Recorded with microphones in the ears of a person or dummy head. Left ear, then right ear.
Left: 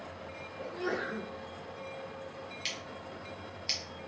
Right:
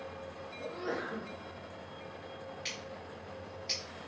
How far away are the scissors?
About 1.4 m.